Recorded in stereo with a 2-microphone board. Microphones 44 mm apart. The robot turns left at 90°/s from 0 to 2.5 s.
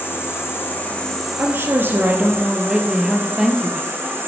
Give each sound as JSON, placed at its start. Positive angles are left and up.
{"t": 0.0, "sound": "an insect", "azimuth_deg": 120, "distance_m": 8.0}
{"t": 1.4, "sound": "a woman speaking", "azimuth_deg": -60, "distance_m": 3.0}